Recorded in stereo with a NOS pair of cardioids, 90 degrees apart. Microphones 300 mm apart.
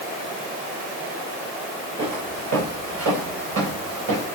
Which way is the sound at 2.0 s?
60° right.